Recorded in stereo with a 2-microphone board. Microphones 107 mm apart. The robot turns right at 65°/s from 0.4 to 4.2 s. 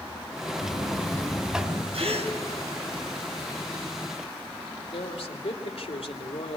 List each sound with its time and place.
0.6 s a buzzer: 125° left, 2.5 m; by 1.8 s 155° right, 2.5 m
1.9 s a gasp: 70° right (ahead or behind), 2.5 m; by 2.3 s 85° right, 2.5 m
4.9 s a man speaking: 75° left (ahead or behind), 2.5 m